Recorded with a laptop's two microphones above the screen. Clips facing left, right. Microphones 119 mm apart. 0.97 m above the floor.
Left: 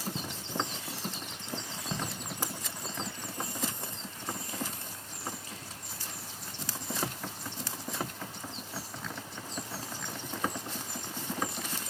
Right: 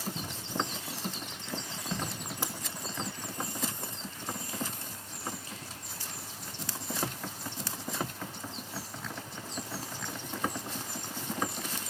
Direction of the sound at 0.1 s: 70° left (ahead or behind).